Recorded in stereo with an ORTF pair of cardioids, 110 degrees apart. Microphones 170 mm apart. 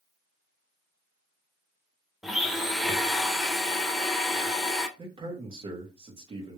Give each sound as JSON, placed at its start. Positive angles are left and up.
{"t": 2.2, "sound": "a blender", "azimuth_deg": 0, "distance_m": 0.7}
{"t": 5.0, "sound": "a man speaking", "azimuth_deg": -30, "distance_m": 1.8}